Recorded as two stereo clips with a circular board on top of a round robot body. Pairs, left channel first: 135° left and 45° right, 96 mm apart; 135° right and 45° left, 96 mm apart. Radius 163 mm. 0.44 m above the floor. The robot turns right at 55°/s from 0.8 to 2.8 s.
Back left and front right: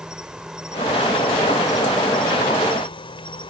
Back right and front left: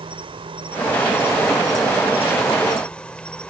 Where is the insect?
35° left; by 3.5 s 145° left.